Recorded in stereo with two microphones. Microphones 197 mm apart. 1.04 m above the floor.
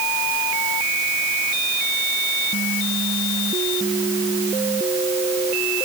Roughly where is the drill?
No drill in this recording.